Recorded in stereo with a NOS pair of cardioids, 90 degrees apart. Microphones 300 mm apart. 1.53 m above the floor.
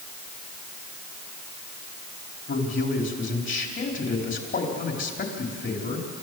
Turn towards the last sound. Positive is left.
turn(degrees=40)